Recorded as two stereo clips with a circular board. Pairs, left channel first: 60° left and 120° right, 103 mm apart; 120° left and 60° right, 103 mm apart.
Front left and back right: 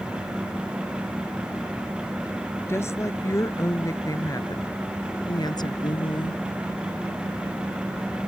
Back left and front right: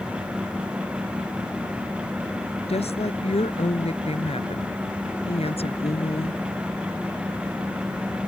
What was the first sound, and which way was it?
A woman speaking, 125° left.